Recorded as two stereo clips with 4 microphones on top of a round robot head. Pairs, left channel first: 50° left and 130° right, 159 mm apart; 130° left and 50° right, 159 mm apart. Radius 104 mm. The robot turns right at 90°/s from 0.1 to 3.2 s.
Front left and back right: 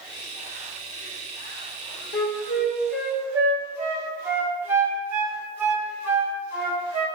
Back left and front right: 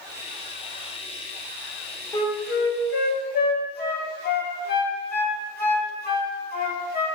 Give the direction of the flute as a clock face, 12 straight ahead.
10 o'clock.